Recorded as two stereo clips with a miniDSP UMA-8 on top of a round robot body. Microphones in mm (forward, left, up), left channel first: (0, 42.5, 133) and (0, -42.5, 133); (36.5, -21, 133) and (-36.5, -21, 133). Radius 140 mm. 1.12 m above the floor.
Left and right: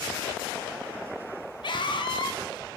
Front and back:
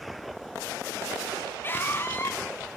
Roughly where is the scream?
Ahead left.